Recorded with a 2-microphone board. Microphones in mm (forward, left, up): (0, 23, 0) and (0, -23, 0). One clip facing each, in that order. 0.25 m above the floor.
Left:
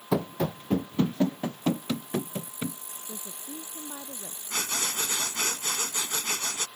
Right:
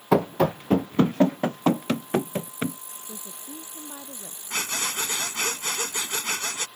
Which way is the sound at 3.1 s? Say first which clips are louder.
Even; 5° left (ahead or behind).